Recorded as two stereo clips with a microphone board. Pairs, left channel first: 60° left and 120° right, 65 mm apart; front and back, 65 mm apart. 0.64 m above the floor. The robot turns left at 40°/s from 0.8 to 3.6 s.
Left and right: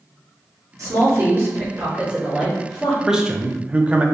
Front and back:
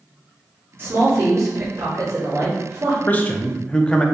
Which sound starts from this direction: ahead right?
A man speaking, at 3.1 s.